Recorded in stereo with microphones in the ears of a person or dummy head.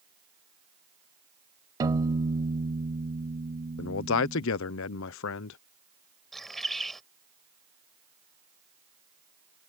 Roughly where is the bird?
Centre.